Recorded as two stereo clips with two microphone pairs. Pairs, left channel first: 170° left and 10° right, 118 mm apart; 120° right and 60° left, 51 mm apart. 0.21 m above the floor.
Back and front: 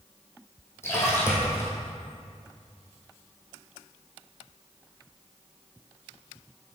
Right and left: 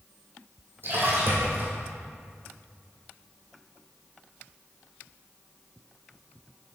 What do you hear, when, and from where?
0.8 s a splash: 105° left, 2 m